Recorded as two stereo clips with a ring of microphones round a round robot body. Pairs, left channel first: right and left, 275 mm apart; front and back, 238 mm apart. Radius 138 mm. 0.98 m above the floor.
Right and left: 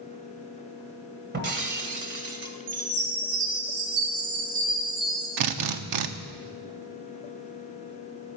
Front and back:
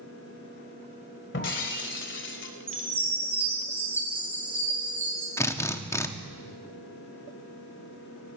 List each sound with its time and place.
1.3 s breaking glass: 40° left, 1.7 m
2.7 s a chime: 100° left, 6 m
5.4 s a drill: 80° left, 0.9 m